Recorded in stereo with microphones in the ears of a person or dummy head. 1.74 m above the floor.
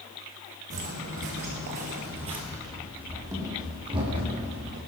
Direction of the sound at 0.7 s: 45° right (ahead or behind).